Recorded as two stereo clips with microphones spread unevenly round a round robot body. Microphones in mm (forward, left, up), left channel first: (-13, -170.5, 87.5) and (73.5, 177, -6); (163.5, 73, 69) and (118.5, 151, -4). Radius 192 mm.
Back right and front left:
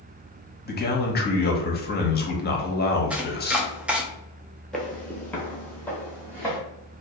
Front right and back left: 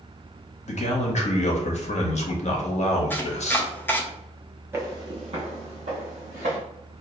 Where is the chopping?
115° left, 0.7 m.